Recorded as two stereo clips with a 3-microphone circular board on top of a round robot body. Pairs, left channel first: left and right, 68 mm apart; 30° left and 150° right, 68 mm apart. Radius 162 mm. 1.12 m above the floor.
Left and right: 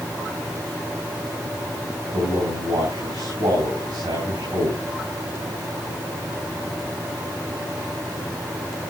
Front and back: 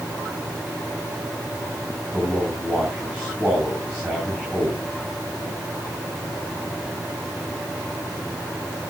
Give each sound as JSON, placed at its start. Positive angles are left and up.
{"t": 2.1, "sound": "a man speaking", "azimuth_deg": -80, "distance_m": 7.0}